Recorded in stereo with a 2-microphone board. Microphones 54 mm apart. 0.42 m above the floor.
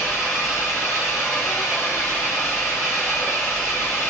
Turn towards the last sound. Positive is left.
turn(degrees=80)